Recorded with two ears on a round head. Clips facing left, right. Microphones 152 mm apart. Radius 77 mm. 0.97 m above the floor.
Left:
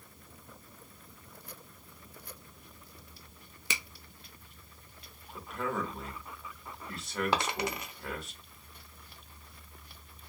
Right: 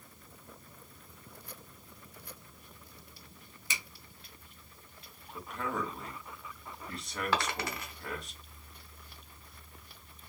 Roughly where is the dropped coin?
Centre.